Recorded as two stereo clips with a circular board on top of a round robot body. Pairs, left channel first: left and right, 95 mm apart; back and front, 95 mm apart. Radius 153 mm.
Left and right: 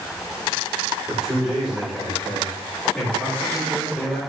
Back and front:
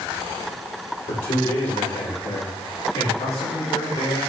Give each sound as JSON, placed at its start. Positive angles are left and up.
{"t": 1.1, "sound": "a man speaking", "azimuth_deg": -170, "distance_m": 4.5}